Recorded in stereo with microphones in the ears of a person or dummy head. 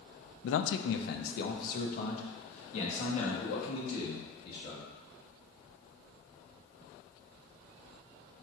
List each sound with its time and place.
0.4 s a man speaking: 80° left, 0.5 m; by 4.8 s 35° left (ahead or behind), 2.5 m